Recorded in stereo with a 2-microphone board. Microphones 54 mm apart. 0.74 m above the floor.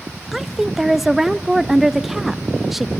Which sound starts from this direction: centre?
A woman speaking, at 0.3 s.